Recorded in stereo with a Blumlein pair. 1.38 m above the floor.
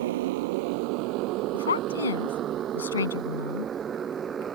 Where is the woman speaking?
70° left.